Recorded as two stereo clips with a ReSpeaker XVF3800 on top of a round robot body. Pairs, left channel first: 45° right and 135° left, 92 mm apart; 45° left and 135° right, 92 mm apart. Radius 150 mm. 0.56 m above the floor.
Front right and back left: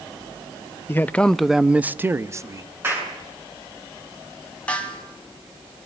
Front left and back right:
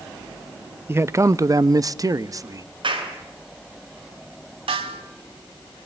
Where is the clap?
160° right, 7.5 m.